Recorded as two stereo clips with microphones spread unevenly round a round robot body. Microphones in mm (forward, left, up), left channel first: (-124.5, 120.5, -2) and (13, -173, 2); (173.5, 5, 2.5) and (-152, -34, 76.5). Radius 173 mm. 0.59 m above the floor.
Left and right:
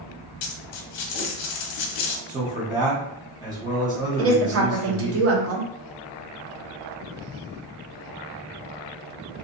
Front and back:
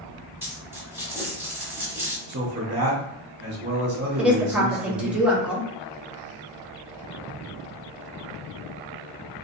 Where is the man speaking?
130° right, 1.1 m.